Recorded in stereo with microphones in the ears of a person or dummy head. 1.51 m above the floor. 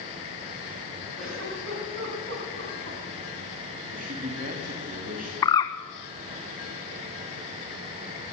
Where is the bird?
20° left (ahead or behind), 0.7 m.